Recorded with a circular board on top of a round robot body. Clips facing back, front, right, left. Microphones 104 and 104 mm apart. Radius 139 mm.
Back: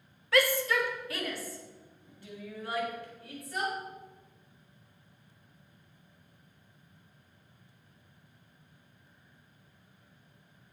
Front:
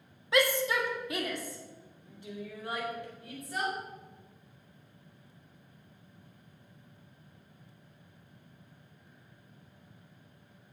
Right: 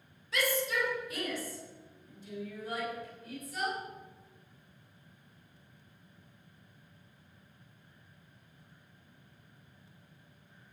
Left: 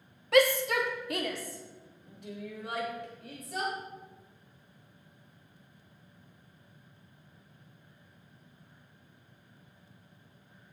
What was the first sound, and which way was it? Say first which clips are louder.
A shout: back 1 dB, left 8 dB; 70° left.